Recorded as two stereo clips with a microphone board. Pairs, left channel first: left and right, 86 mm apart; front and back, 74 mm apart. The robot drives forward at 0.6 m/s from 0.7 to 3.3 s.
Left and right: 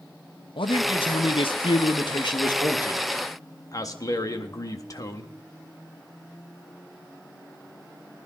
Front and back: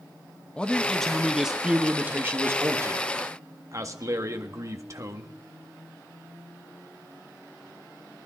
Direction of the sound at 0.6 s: 75° left.